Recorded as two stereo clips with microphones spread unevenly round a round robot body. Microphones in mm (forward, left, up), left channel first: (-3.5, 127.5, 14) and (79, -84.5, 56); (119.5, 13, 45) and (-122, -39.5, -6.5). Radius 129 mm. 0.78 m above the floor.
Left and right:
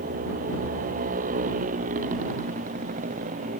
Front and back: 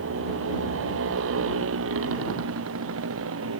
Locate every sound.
0.0 s a motorcycle: 130° right